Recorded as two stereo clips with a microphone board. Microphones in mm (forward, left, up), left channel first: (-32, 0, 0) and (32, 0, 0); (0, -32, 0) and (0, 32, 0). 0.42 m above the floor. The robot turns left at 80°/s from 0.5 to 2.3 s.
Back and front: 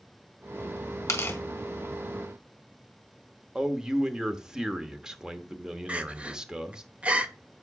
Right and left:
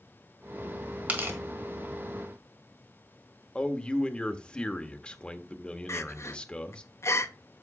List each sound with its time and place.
1.1 s tearing paper: 150° left, 1.7 m; by 1.4 s 125° left, 1.7 m
3.5 s a man speaking: 60° right, 1.0 m
5.9 s crying: 65° right, 0.8 m